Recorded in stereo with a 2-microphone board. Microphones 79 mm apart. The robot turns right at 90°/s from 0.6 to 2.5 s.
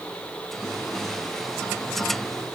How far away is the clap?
I don't hear a clap.